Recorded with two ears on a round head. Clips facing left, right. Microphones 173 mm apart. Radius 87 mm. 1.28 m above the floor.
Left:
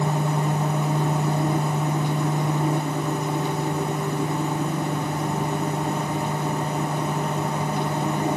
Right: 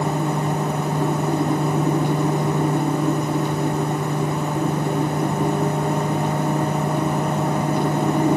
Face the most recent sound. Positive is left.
No sound to turn to.